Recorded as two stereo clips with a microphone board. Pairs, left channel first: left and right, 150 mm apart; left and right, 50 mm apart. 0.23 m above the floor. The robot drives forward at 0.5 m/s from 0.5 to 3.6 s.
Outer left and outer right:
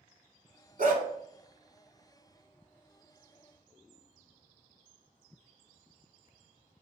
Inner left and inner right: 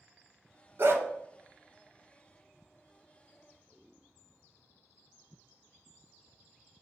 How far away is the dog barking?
About 1.0 m.